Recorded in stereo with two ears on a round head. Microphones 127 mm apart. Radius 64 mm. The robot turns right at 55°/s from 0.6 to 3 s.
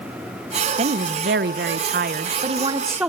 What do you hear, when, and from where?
0.8 s a woman speaking: 135° right, 0.5 m; by 3.1 s 10° right, 0.5 m